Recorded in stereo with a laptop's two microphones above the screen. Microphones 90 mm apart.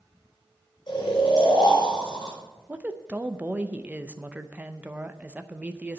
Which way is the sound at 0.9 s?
60° left (ahead or behind).